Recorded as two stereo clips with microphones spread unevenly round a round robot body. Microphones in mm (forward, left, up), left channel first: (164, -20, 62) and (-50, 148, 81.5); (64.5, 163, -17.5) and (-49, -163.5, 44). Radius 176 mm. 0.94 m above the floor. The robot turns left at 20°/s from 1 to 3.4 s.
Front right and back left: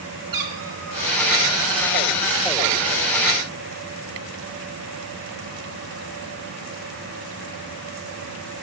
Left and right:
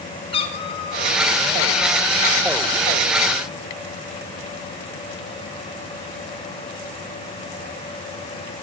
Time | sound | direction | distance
0.3 | a cat meowing | 150° left | 2.5 m